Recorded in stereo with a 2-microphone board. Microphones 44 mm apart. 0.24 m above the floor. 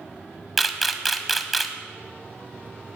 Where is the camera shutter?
Centre (ahead or behind), 1.3 m.